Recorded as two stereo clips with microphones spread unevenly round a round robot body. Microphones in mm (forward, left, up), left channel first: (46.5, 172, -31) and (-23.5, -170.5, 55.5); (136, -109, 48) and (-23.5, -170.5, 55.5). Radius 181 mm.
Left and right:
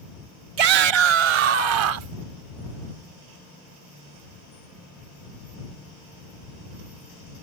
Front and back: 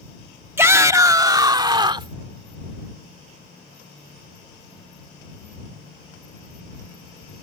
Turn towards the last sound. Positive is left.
turn(degrees=-95)